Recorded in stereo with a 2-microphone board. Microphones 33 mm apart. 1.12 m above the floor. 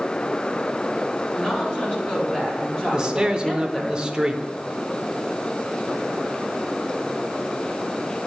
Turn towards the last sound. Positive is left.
turn(degrees=-25)  # may be behind; listen again after turning